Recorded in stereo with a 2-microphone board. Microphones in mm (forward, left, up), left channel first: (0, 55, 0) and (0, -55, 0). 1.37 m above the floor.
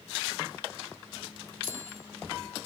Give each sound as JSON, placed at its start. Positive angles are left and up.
{"t": 1.6, "sound": "a bicycle bell", "side_deg": 20, "distance_m": 3.5}